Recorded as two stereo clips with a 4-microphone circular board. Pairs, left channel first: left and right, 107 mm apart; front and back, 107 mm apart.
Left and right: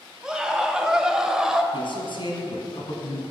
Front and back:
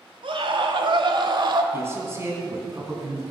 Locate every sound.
0.2 s a scream: 170° right, 1.8 m
1.7 s a man speaking: 120° left, 3 m